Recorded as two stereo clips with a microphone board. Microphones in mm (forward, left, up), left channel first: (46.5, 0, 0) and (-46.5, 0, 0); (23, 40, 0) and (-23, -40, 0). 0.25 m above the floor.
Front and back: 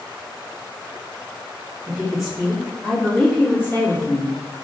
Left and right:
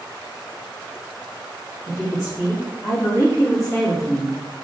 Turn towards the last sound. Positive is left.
turn(degrees=20)